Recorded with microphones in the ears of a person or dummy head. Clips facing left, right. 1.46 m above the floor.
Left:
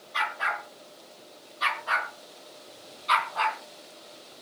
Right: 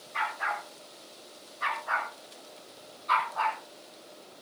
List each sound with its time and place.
0.1 s a dog barking: 50° left (ahead or behind), 5.5 m; by 3.6 s 40° left (ahead or behind), 3.5 m